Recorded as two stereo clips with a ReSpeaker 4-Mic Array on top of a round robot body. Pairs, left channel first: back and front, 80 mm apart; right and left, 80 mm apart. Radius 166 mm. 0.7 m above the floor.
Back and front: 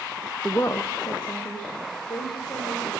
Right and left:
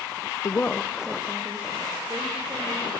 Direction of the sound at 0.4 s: 100° right.